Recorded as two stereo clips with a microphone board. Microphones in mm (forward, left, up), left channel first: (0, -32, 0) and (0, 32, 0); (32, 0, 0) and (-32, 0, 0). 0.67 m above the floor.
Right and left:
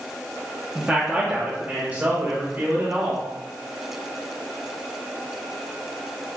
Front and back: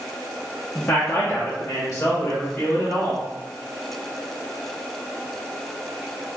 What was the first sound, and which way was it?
A man speaking, 35° left.